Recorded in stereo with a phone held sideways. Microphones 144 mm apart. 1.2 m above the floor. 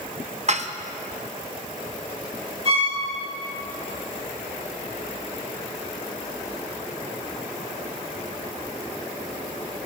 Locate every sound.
0.5 s dishes clattering: 50° right (ahead or behind), 0.8 m
2.6 s a violin: 40° right (ahead or behind), 5 m